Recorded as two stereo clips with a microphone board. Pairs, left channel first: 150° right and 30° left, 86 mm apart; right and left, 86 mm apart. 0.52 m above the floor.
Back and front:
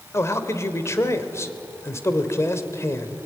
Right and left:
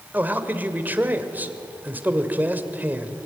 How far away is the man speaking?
About 2 m.